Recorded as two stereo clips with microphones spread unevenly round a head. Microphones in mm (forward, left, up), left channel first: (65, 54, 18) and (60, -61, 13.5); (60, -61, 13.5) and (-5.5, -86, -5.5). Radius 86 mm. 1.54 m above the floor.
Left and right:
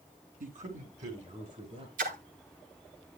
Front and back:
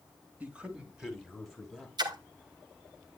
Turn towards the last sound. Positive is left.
turn(degrees=-135)